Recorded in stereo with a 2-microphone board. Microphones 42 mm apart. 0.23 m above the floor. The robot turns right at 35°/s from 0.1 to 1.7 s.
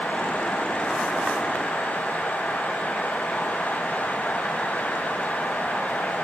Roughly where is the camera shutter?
No camera shutter in this recording.